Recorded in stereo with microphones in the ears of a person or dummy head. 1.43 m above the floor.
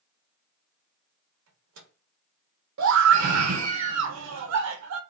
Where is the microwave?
85° right, 0.7 m.